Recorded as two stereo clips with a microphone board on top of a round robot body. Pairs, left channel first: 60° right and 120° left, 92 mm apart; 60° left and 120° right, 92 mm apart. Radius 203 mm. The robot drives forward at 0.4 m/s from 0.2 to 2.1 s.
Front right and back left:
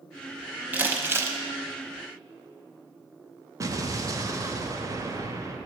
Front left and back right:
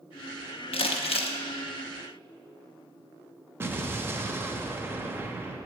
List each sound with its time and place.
0.7 s crumpling: 45° left, 1.1 m; by 1.4 s 60° left, 0.9 m
3.6 s an explosion: 175° left, 1.0 m